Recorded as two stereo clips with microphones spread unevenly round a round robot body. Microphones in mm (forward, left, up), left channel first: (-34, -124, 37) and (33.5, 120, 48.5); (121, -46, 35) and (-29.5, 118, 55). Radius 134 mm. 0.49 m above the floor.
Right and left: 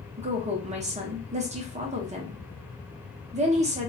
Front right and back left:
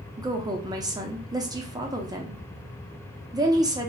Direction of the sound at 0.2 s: 75° left.